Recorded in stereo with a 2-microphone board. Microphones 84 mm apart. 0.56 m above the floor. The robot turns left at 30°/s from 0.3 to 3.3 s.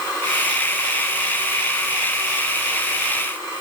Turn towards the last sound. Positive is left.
No sound to turn to.